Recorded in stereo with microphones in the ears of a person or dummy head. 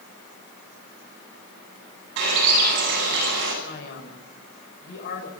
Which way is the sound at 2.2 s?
65° right (ahead or behind).